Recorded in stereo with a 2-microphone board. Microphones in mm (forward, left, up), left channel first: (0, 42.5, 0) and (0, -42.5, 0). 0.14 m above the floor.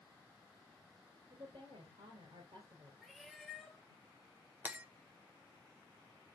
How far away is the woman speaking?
About 2.5 m.